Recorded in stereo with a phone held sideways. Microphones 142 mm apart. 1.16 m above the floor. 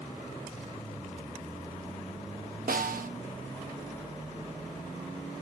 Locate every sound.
2.7 s a snare drum: 80° right, 1.0 m